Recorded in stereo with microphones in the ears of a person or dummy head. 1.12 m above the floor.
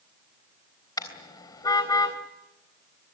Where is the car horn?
25° left (ahead or behind), 3.5 m.